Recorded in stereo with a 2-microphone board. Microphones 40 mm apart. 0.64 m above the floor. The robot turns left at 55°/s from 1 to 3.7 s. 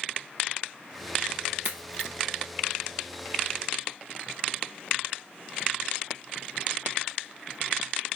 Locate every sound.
1.6 s a crack: 65° right (ahead or behind), 2.5 m; by 2.1 s 40° right (ahead or behind), 2.5 m